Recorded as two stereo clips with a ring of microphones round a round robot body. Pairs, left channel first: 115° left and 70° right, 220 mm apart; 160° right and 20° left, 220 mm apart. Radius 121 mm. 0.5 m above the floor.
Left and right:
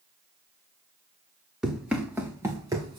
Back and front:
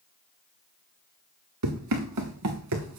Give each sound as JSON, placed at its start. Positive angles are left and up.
{"t": 1.6, "sound": "running footsteps", "azimuth_deg": 20, "distance_m": 3.0}